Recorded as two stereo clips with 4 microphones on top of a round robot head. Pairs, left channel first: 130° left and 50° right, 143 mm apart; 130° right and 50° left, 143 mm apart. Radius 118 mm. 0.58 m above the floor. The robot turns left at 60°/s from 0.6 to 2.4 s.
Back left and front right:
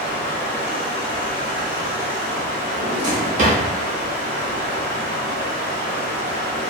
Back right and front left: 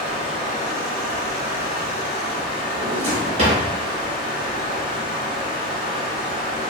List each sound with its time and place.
0.0 s running water: 95° left, 1.4 m; by 6.7 s 15° right, 1.4 m
2.7 s a drawer: 5° right, 0.5 m